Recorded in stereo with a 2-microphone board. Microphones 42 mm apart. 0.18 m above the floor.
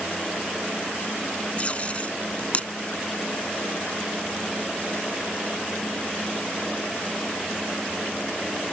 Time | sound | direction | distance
1.6 | tape being pulled | 30° left (ahead or behind) | ?